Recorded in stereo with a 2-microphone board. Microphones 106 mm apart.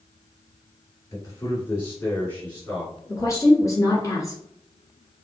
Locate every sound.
1.1 s a man speaking: 25° left (ahead or behind), 1.8 m; by 2.9 s 10° left (ahead or behind), 1.8 m
3.1 s a woman speaking: 30° left (ahead or behind), 1.5 m